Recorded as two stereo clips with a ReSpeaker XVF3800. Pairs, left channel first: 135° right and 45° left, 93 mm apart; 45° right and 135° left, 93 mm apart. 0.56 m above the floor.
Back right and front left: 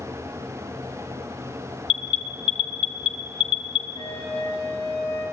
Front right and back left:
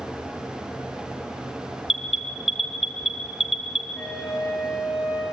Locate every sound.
1.9 s an alarm: 140° right, 1.8 m
3.9 s a flute: 140° right, 8.5 m